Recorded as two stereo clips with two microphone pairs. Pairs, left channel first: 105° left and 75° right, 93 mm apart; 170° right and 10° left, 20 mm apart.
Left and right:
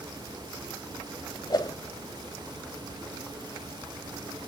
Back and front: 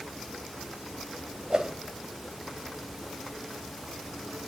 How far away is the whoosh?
About 2.5 m.